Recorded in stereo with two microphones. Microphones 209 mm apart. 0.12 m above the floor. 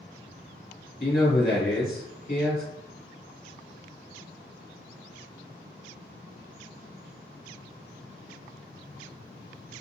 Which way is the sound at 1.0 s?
50° left (ahead or behind).